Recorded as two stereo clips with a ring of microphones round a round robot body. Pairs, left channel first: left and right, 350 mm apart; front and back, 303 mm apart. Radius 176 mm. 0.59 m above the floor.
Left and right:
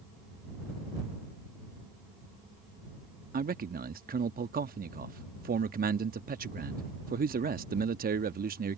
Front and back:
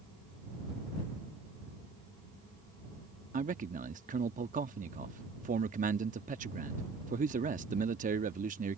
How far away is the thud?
I don't hear a thud.